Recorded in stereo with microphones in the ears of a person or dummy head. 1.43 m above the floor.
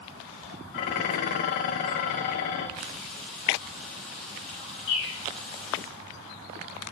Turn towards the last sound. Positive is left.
turn(degrees=70)  # may be behind; listen again after turning